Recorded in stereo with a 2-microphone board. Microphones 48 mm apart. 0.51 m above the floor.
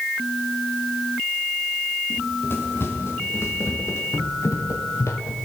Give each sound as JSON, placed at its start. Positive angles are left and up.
{"t": 2.1, "sound": "running footsteps", "side_deg": 45, "distance_m": 4.5}